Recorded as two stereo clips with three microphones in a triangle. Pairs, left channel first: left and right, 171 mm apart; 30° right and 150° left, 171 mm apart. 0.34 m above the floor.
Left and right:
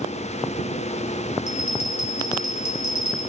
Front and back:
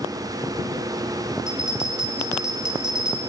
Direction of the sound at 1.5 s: 65° left.